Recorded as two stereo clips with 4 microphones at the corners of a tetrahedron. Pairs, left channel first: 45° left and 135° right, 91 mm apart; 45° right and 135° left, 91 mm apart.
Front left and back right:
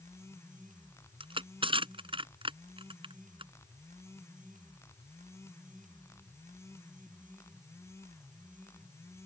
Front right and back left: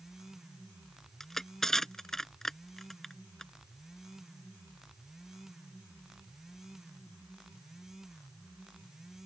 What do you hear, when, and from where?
1.2 s crushing: 130° right